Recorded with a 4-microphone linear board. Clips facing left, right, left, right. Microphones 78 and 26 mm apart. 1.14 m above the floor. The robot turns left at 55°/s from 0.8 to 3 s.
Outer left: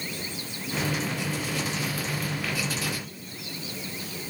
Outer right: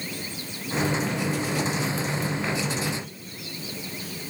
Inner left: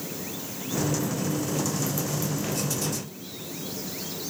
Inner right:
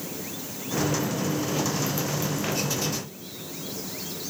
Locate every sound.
Only background noise.